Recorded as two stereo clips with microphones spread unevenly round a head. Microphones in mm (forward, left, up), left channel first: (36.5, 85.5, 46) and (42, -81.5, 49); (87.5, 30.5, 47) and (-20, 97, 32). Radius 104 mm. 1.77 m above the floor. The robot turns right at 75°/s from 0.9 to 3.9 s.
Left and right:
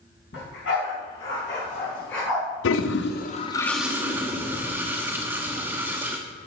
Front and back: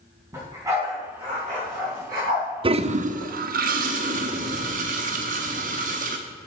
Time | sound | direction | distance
0.3 | a dog barking | 80° left | 4 m
2.6 | a toilet flushing | 95° left | 0.8 m